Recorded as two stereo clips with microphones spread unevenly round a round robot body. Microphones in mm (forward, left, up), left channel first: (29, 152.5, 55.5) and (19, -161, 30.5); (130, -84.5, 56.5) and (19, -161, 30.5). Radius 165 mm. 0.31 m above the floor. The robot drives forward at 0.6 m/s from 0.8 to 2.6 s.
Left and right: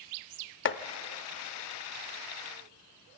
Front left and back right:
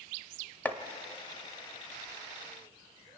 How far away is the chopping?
About 0.7 m.